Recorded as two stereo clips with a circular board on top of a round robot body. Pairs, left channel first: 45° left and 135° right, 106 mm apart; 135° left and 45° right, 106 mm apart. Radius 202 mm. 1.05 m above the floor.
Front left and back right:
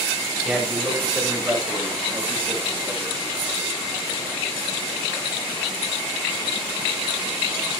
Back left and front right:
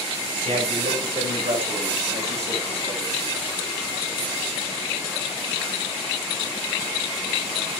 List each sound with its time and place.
0.4 s a man speaking: 50° right, 7.5 m; by 3.2 s 70° right, 8 m